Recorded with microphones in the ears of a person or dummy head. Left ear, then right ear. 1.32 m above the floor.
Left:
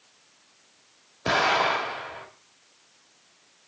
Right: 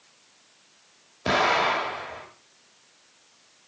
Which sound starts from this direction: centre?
An explosion, at 1.2 s.